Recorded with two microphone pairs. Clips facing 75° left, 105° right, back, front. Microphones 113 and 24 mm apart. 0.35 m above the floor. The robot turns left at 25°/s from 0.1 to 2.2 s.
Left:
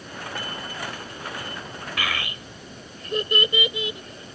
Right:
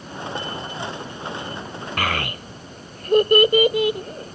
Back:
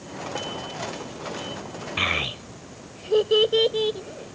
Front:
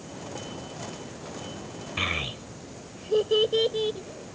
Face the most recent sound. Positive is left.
turn(degrees=-120)